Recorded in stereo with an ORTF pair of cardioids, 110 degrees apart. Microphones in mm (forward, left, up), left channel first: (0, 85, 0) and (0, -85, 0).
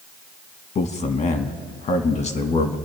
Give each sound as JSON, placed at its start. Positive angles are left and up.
{"t": 0.8, "sound": "a man speaking", "azimuth_deg": 45, "distance_m": 1.9}